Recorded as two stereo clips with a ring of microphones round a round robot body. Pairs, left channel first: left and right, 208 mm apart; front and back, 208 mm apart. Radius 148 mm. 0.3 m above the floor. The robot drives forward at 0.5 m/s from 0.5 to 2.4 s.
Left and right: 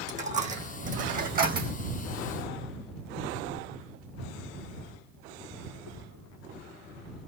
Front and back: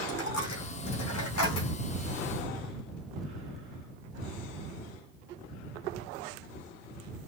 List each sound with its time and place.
0.1 s a dropped coin: 35° right, 2 m; by 1.7 s 45° right, 1.7 m